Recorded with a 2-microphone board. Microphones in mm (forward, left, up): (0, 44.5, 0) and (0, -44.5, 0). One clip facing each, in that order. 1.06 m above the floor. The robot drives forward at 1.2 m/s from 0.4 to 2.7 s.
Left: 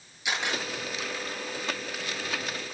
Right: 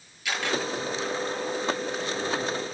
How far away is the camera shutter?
About 9 m.